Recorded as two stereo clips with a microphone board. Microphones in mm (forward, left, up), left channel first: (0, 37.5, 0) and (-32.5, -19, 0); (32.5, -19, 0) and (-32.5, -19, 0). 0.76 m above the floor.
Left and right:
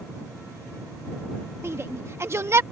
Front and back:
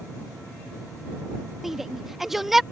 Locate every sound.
1.6 s a shout: 95° right